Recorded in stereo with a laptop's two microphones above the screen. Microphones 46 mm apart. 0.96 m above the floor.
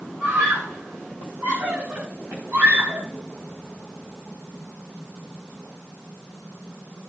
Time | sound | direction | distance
0.2 | a scream | 75° right (ahead or behind) | 5 m